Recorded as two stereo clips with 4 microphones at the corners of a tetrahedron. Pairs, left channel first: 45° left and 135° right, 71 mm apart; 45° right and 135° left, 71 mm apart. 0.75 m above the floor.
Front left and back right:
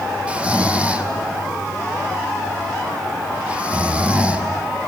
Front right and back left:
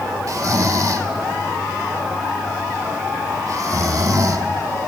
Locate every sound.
0.3 s snoring: 155° left, 1.1 m